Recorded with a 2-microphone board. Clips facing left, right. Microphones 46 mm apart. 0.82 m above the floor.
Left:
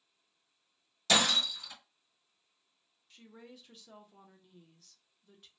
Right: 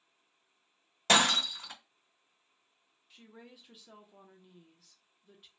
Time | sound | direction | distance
1.1 | breaking glass | 50° right (ahead or behind) | 0.7 m
3.1 | a woman speaking | 10° right (ahead or behind) | 0.6 m